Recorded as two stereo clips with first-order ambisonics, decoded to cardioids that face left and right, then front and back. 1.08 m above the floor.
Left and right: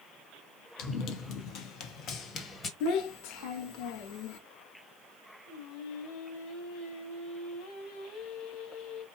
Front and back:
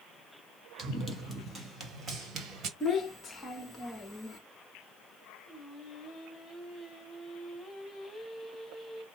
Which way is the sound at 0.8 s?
95° left.